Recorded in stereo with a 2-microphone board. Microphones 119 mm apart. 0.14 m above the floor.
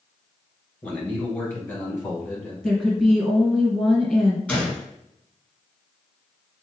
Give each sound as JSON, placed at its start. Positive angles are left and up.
{"t": 0.8, "sound": "a man speaking", "side_deg": 10, "distance_m": 1.6}
{"t": 2.6, "sound": "a woman speaking", "side_deg": 5, "distance_m": 1.8}
{"t": 4.5, "sound": "a gunshot", "side_deg": 10, "distance_m": 1.9}